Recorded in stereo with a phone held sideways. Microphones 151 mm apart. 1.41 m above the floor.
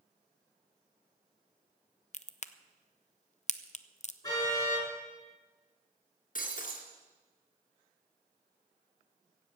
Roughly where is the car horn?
Left.